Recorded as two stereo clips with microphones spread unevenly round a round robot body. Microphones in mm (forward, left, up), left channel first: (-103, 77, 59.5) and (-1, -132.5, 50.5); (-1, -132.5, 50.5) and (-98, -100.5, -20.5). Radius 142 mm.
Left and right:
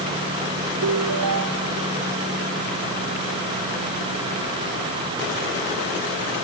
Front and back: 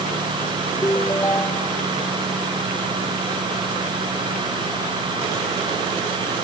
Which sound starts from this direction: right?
A ringtone, at 0.8 s.